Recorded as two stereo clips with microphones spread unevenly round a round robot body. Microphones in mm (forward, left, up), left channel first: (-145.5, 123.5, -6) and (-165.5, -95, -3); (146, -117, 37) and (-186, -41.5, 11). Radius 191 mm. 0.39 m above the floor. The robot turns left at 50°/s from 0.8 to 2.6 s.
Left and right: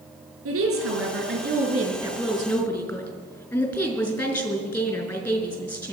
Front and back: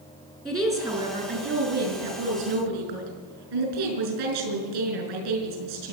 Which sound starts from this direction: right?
A woman speaking, at 0.5 s.